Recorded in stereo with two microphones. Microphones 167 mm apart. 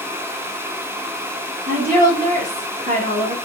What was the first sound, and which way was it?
A woman speaking, 55° right (ahead or behind).